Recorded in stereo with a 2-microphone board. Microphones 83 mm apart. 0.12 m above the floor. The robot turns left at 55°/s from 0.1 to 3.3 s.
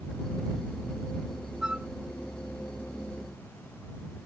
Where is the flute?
5° right (ahead or behind); by 1.9 s 20° right (ahead or behind).